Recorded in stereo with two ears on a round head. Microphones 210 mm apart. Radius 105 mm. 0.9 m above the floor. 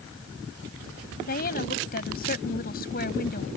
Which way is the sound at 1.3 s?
40° left (ahead or behind).